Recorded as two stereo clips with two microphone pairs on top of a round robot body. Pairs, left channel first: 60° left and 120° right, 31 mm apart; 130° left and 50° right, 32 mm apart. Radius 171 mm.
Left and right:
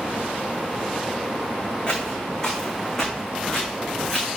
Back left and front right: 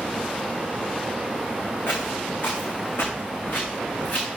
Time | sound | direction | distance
1.9 | footsteps | 125° left | 2.5 m